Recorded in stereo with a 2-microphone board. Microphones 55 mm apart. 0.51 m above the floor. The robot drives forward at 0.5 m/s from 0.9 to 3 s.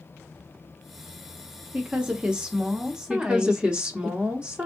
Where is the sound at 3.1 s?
20° right (ahead or behind), 0.9 m.